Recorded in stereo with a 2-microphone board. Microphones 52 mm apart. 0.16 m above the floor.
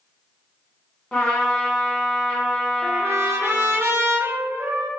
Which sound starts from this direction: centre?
A trumpet, at 1.1 s.